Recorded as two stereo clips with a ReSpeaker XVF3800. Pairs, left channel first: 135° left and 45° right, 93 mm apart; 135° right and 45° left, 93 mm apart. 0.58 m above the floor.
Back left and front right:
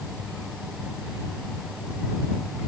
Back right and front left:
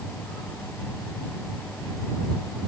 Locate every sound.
Only background noise.